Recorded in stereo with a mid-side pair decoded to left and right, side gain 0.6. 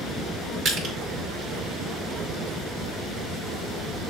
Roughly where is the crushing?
Ahead right.